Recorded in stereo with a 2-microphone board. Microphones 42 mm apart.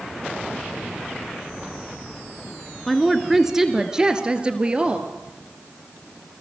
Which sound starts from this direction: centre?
A woman speaking, at 2.9 s.